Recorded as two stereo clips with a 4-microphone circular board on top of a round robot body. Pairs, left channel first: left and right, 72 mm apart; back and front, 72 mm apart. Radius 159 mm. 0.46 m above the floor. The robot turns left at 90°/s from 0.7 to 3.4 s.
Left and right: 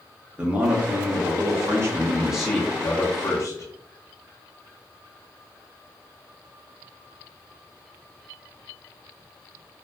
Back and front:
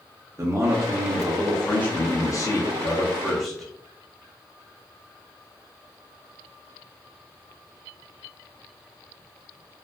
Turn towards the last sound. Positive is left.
turn(degrees=90)